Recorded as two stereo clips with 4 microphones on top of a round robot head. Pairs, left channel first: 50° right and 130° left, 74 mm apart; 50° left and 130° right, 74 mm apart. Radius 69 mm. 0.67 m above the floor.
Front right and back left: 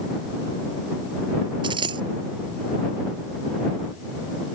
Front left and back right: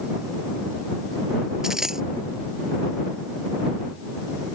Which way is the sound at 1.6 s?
145° left.